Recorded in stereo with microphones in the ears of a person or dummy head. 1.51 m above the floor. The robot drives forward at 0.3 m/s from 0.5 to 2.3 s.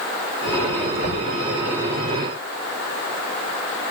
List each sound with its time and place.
1.0 s knocking: 35° left (ahead or behind), 4 m